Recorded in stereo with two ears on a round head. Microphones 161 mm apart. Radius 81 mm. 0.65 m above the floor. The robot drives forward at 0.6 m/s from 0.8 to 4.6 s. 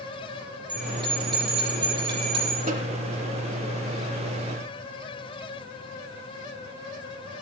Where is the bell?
25° right (ahead or behind), 8.5 m.